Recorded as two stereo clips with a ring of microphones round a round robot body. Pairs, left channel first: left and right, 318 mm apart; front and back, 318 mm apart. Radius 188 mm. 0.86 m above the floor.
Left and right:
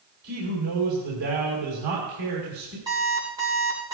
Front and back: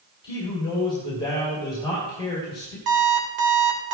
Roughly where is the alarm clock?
Behind.